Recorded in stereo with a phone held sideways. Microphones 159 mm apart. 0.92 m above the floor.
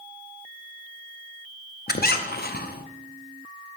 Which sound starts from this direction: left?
A squeak, at 1.9 s.